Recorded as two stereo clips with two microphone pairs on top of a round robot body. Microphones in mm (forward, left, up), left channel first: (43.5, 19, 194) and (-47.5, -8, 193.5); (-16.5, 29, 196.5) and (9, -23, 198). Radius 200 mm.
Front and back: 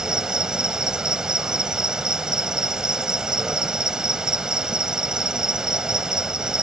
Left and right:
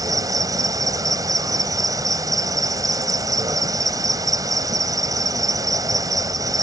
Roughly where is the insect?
Right.